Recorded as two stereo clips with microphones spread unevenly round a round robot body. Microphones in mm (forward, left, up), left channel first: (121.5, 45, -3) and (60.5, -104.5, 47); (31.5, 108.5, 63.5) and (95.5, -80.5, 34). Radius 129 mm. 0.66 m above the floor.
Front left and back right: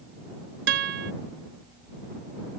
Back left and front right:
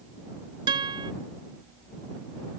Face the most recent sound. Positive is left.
turn(degrees=-145)